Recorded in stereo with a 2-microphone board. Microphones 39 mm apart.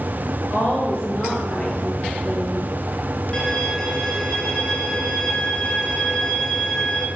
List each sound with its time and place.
0.5 s a woman speaking: 40° left (ahead or behind), 1.4 m; by 2.7 s centre (ahead or behind), 1.6 m
3.3 s a violin: 25° left (ahead or behind), 1.7 m